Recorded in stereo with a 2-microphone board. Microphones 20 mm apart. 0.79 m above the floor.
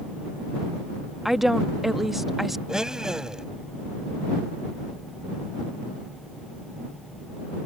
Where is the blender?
30° right (ahead or behind).